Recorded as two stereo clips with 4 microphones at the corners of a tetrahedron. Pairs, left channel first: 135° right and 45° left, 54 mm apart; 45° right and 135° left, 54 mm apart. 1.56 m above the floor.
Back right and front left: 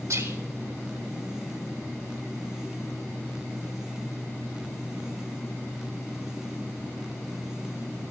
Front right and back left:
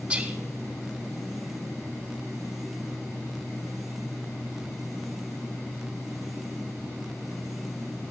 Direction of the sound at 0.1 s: 70° left.